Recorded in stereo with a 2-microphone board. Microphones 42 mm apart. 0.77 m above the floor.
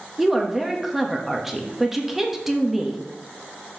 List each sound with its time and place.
0.2 s a woman speaking: 5° right (ahead or behind), 1.1 m